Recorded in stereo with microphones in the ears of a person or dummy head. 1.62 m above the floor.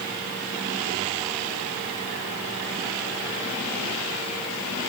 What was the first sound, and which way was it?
Only background noise.